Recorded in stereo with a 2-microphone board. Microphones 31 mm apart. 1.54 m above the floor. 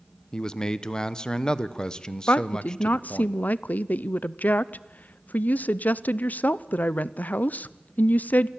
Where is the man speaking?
30° left (ahead or behind), 1.0 m.